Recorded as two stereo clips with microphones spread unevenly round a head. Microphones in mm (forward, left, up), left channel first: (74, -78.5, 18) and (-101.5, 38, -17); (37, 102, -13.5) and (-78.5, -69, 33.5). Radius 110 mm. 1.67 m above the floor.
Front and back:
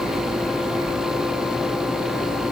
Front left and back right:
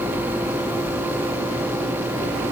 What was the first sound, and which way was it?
Only background noise.